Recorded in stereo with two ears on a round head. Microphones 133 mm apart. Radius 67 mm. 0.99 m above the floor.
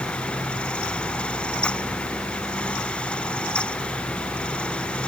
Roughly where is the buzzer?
No buzzer in this recording.